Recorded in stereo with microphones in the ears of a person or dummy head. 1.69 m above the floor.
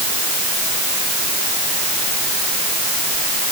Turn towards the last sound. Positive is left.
No sound to turn to.